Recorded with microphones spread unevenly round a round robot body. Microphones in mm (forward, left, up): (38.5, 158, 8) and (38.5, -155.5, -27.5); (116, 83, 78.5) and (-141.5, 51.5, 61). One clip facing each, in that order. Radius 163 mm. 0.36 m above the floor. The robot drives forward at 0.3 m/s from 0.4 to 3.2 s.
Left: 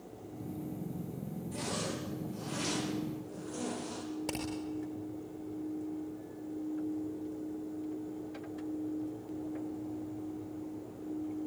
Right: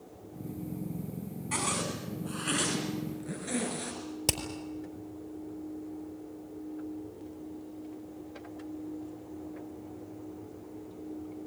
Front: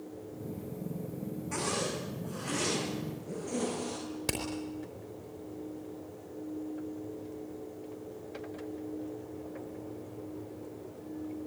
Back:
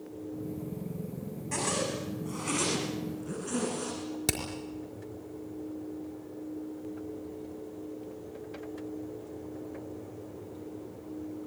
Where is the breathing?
No breathing in this recording.